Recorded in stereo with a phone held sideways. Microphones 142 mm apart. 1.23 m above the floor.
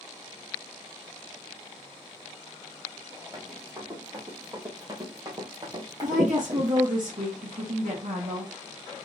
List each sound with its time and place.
3.3 s running footsteps: 25° right (ahead or behind), 2.5 m; by 6.9 s 30° right (ahead or behind), 1.4 m
6.0 s a woman speaking: 75° right (ahead or behind), 1.5 m